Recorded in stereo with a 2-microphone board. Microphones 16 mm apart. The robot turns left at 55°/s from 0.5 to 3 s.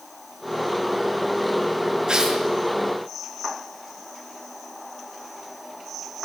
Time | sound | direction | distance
2.1 | tearing paper | 50° right (ahead or behind) | 7 m